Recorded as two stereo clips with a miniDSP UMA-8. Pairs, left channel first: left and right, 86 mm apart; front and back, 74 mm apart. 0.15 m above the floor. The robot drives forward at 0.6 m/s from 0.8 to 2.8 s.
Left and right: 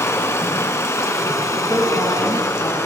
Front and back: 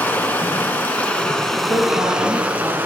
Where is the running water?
55° left, 1.4 m; by 2.9 s 130° left, 1.4 m.